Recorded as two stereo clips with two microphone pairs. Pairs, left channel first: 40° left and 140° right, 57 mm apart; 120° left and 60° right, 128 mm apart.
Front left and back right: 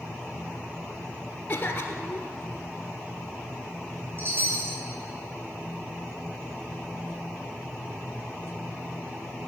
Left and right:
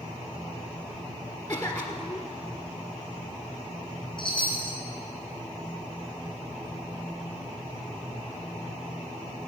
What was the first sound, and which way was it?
A cough, 80° left.